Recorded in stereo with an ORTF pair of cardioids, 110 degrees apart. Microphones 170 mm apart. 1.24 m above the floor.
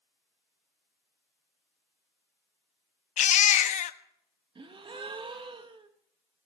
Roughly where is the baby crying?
Ahead left.